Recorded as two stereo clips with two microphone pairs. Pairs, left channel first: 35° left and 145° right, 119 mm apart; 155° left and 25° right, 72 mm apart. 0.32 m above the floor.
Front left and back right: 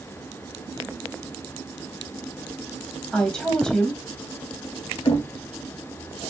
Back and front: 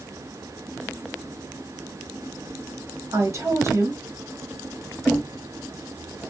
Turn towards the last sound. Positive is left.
turn(degrees=55)